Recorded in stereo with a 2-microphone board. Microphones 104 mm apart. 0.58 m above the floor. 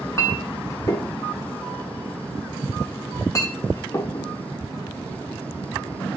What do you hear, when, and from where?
0.2 s a clink: 35° left (ahead or behind), 1.0 m